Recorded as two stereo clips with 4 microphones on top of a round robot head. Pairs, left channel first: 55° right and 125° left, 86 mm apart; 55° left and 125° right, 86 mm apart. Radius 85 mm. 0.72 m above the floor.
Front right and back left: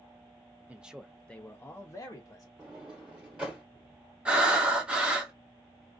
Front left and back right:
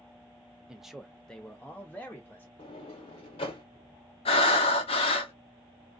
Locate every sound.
0.7 s a man speaking: 165° left, 0.6 m; by 2.5 s 10° right, 1.0 m
2.6 s a sliding door: 50° left, 1.2 m
4.2 s breathing: 50° left, 0.6 m